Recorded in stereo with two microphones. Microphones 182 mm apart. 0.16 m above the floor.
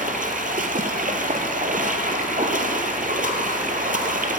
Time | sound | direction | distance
0.0 | running water | 50° right (ahead or behind) | 1.0 m